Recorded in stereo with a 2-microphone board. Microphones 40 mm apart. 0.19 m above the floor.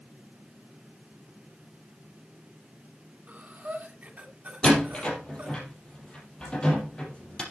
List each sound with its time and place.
3.3 s breathing: 35° right (ahead or behind), 1.8 m
4.6 s a door slam: 25° left (ahead or behind), 4 m